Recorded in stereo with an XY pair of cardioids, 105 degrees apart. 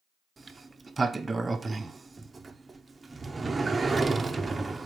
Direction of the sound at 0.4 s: 25° right.